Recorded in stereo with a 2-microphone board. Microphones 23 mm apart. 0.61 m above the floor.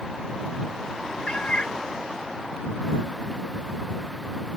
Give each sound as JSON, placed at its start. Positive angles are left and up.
{"t": 1.3, "sound": "a cat meowing", "side_deg": 55}